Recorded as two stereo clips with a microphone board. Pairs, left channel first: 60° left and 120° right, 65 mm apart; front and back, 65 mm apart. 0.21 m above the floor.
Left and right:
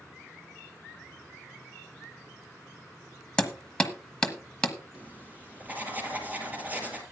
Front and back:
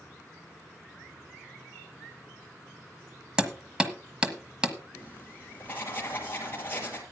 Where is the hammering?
125° left, 1.3 m.